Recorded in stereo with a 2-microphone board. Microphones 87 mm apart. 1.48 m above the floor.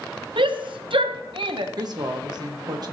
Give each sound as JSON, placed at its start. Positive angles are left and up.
{"t": 0.4, "sound": "a shout", "side_deg": -70, "distance_m": 0.7}
{"t": 1.8, "sound": "a woman speaking", "side_deg": -50, "distance_m": 1.1}